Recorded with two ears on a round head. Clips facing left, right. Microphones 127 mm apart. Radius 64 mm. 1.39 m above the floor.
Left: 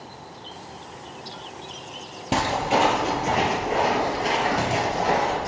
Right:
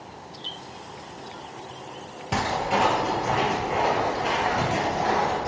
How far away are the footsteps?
About 2.5 m.